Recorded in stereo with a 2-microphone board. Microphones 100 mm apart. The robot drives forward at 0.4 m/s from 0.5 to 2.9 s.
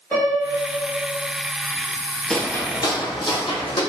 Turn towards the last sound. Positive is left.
turn(degrees=70)  # may be behind; listen again after turning